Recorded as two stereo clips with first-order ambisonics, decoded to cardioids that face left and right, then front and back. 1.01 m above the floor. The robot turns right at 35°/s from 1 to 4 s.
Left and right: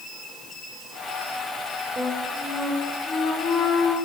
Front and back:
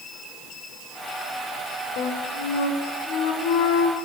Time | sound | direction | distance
2.0 | a flute | 25° right | 1.8 m